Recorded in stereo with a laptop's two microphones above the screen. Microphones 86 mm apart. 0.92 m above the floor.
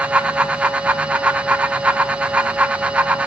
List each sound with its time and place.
0.0 s a fan: 15° right (ahead or behind), 1.1 m